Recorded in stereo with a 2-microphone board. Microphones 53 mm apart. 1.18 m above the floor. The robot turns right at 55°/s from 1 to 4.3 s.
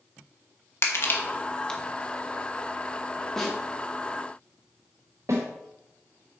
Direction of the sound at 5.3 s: 65° right (ahead or behind).